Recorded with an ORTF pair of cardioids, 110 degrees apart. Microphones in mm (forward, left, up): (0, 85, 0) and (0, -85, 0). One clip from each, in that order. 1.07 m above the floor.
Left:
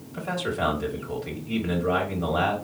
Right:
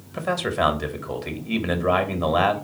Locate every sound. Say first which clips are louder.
0.1 s a man speaking: right 4 dB; 45° right, 1.3 m